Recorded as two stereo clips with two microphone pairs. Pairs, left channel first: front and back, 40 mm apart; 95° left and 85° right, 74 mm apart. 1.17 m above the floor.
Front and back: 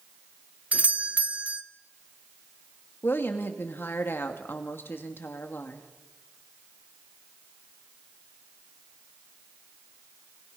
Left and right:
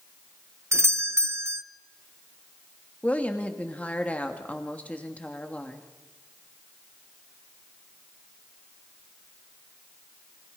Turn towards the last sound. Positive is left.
turn(degrees=25)